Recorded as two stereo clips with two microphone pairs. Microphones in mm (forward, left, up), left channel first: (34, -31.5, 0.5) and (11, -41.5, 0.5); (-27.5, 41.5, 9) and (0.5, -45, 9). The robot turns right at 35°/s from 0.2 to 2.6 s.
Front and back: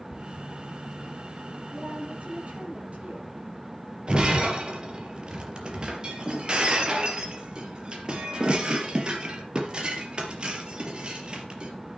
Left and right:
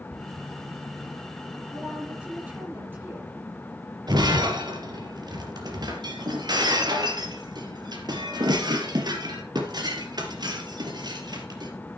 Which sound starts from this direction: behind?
A woman speaking, at 1.7 s.